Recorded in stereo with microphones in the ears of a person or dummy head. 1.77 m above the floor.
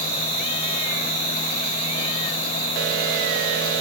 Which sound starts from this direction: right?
An insect, at 0.0 s.